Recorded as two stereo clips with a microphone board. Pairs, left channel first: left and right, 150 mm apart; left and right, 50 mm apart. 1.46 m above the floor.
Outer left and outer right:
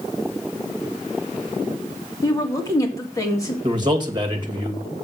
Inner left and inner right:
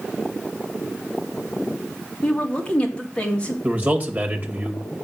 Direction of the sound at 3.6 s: 30° right (ahead or behind).